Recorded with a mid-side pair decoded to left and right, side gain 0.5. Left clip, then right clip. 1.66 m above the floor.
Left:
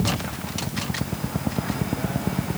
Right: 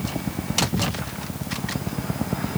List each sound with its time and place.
Only background noise.